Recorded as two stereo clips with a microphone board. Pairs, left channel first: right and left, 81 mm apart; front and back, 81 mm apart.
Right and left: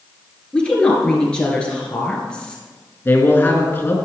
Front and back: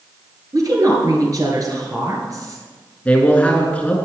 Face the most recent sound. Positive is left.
turn(degrees=-55)